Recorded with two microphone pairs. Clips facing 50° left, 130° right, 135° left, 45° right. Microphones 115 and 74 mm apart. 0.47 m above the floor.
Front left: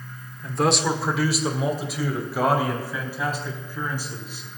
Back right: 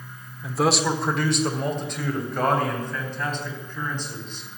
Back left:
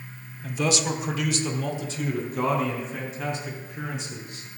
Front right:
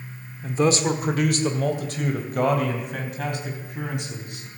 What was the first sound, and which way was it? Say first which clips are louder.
A man speaking: even, front right 5 dB; 45° right.